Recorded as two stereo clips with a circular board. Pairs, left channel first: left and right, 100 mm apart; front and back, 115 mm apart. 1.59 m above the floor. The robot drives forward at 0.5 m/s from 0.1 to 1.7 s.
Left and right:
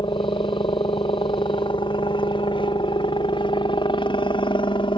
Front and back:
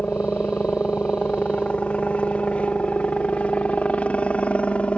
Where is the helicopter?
75° left; by 5.0 s 80° left.